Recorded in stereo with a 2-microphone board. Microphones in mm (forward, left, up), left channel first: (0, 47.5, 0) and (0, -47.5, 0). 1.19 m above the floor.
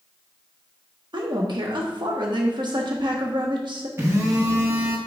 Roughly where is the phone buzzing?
Right.